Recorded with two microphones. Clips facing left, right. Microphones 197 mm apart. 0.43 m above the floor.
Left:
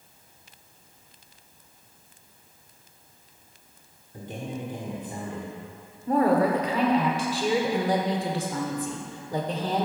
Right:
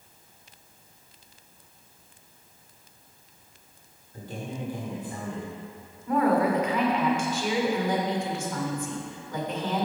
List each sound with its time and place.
4.1 s a man speaking: 20° left (ahead or behind), 1.4 m
6.1 s a woman speaking: 35° left (ahead or behind), 1.2 m